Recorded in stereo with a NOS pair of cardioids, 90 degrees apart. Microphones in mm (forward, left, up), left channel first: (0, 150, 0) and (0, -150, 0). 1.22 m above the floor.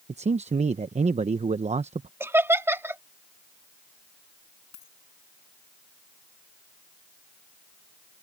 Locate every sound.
0.1 s a man speaking: 25° right
2.2 s laughter: 10° right
4.7 s a dropped coin: 65° left